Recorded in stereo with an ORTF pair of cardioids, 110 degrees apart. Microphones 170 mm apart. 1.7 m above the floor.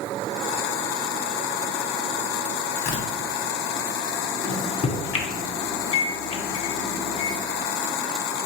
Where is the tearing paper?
45° left, 1.1 m.